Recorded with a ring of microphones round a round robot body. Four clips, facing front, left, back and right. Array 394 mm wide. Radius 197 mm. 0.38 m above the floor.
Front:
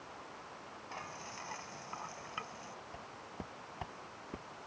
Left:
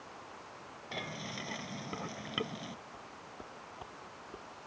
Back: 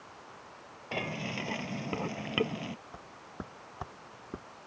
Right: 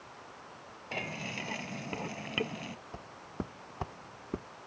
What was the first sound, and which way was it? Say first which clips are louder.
Frying: right 3 dB, back 11 dB; 175° right.